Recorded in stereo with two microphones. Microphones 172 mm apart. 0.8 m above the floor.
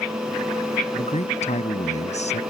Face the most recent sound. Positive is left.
turn(degrees=40)  # may be behind; listen again after turning